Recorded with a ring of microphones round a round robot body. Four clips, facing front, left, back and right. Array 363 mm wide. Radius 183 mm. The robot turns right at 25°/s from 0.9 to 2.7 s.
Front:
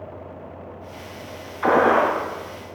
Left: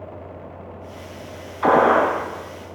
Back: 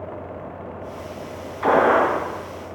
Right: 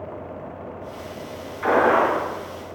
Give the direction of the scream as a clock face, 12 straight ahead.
I don't hear a scream.